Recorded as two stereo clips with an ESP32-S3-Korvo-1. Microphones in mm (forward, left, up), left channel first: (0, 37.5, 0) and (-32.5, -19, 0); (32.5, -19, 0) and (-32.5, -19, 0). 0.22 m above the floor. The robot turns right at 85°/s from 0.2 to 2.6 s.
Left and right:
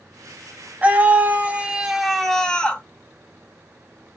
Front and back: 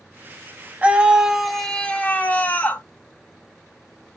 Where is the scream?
145° right, 1.0 m; by 2.8 s 5° left, 1.0 m.